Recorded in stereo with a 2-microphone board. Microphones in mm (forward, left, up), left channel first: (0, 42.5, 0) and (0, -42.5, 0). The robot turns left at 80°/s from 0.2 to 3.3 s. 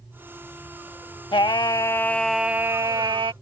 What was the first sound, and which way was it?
Singing, 80° left.